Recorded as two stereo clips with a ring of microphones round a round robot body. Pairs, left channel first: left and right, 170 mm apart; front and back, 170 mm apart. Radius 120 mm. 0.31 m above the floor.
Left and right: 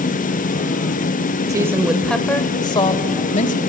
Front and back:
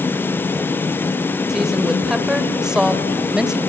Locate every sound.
1.5 s a woman speaking: 100° right, 1.0 m; by 3.6 s 95° left, 1.4 m